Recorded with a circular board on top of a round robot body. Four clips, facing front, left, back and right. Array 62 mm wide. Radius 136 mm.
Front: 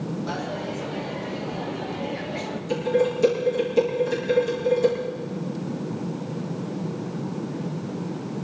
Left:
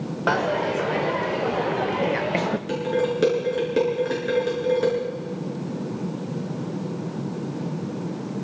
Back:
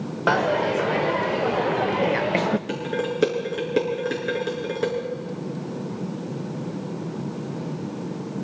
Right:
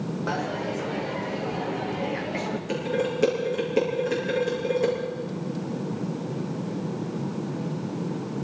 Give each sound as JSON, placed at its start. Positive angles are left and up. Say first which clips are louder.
{"t": 0.3, "sound": "a dropped coin", "louder": "left 9 dB, back 9 dB", "azimuth_deg": 150, "distance_m": 0.5}
{"t": 2.7, "sound": "dishes clattering", "louder": "left 2 dB, front 4 dB", "azimuth_deg": 150, "distance_m": 6.0}